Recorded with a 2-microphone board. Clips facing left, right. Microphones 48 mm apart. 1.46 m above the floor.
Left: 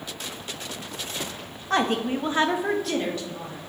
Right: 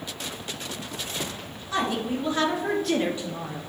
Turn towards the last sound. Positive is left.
turn(degrees=-40)  # may be behind; listen again after turning